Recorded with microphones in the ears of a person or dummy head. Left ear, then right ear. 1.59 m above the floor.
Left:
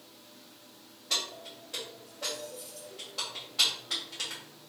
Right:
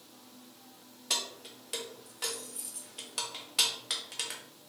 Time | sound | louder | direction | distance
1.1 | keys jangling | left 2 dB | 40° right (ahead or behind) | 0.6 m